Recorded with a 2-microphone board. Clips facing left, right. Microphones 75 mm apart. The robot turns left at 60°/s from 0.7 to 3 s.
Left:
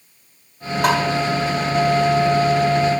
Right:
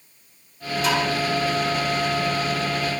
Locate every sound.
0.8 s tapping: 65° left (ahead or behind), 9.5 m; by 1.0 s 50° left (ahead or behind), 9.5 m